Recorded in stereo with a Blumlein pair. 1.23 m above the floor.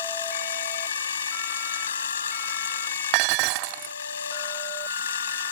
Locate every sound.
0.0 s a machine running: 65° left
3.1 s dishes clattering: 45° right